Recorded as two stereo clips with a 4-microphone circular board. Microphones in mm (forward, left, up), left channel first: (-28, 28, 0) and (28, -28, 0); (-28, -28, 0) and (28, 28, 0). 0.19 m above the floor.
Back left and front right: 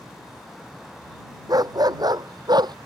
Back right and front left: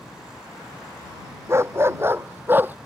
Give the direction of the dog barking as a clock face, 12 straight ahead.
12 o'clock.